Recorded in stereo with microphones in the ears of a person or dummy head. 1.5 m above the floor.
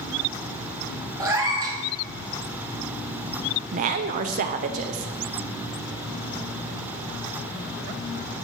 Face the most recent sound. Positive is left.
turn(degrees=-40)  # may be behind; listen again after turning